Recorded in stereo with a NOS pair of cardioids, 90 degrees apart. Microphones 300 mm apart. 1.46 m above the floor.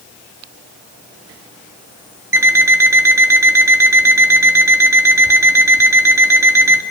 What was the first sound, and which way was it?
An alarm clock, 10° right.